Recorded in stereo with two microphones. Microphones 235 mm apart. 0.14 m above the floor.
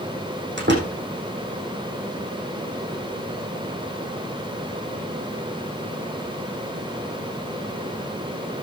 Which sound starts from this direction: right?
A door slam, at 0.6 s.